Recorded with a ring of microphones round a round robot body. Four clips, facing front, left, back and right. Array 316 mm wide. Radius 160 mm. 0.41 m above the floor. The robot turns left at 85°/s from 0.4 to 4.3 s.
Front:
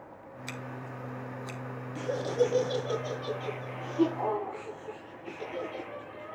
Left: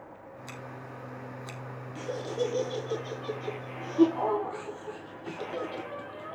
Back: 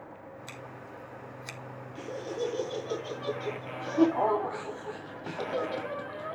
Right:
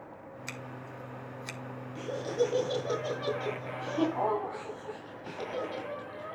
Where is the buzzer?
No buzzer in this recording.